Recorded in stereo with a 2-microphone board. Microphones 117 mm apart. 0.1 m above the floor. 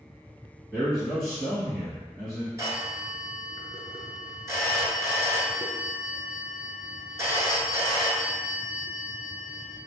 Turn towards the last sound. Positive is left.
turn(degrees=-25)  # may be behind; listen again after turning